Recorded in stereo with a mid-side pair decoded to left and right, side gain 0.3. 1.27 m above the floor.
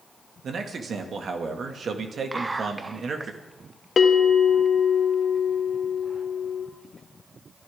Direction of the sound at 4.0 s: 55° left.